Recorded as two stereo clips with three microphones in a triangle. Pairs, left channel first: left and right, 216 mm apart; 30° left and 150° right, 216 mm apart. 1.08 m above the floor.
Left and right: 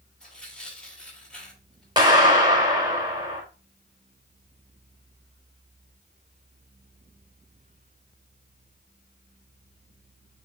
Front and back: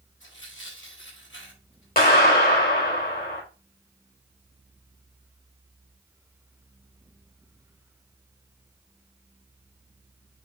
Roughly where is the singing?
I don't hear singing.